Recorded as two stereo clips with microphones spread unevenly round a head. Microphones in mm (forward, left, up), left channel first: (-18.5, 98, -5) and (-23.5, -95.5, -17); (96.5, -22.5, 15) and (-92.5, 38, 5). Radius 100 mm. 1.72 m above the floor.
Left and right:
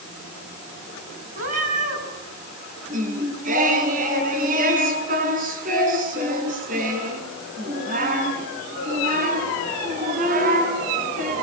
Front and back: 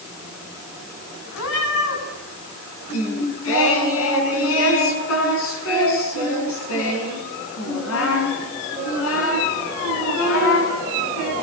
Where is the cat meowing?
35° right, 8 m.